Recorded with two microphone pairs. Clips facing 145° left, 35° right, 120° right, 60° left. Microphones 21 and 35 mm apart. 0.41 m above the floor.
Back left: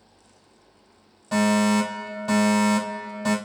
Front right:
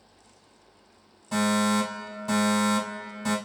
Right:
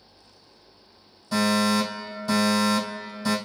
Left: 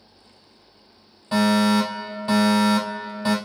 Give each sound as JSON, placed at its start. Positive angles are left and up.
{"t": 1.3, "sound": "a fire alarm", "azimuth_deg": 100, "distance_m": 3.0}